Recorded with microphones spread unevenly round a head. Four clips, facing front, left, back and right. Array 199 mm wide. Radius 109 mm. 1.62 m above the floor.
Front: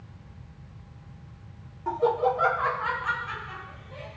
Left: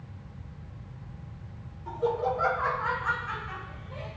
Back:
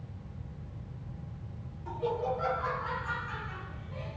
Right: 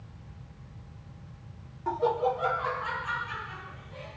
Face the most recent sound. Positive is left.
turn(degrees=50)